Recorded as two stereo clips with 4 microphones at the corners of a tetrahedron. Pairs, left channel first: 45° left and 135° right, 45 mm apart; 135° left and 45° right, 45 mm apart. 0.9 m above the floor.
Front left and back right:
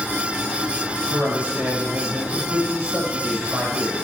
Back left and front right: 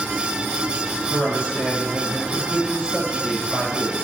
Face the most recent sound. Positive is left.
turn(degrees=-165)